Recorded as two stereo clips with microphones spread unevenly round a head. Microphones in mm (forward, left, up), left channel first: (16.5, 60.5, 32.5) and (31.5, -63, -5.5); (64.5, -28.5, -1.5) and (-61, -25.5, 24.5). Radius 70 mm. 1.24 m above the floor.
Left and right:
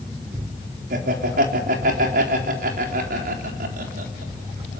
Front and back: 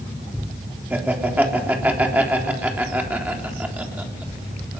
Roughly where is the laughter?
Right.